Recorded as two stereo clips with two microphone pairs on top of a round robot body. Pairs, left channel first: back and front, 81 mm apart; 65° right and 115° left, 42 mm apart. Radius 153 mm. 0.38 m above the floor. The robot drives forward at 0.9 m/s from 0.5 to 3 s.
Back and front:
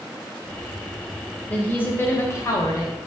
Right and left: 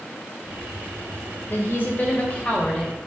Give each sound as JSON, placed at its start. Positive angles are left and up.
{"t": 1.5, "sound": "a woman speaking", "azimuth_deg": -105, "distance_m": 2.5}